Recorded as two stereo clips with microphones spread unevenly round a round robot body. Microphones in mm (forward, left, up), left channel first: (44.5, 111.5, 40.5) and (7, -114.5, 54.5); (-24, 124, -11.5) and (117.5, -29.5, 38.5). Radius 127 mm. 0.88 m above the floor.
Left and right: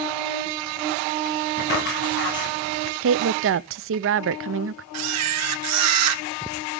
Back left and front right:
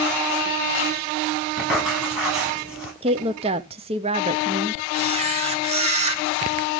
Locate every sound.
1.6 s writing: 40° left, 9.5 m
3.0 s a woman speaking: 120° right, 0.6 m
4.9 s a camera shutter: 105° right, 0.9 m